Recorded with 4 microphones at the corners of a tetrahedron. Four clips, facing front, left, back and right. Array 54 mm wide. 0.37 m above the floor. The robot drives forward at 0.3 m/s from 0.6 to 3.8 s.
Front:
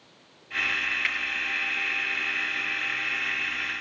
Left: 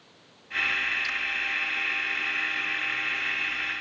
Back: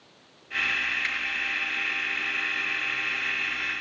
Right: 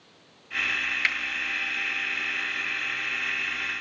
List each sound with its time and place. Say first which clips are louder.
1.0 s a finger snap: right 5 dB, front 2 dB; 85° right, 6.5 m